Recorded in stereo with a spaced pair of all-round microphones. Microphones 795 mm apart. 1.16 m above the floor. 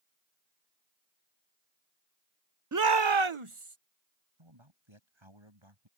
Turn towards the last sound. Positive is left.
turn(degrees=-35)  # may be behind; listen again after turning